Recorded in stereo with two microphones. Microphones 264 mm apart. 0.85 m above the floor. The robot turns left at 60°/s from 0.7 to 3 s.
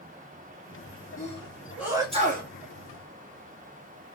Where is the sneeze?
30° left (ahead or behind), 1.3 m; by 2.5 s 40° right (ahead or behind), 1.3 m.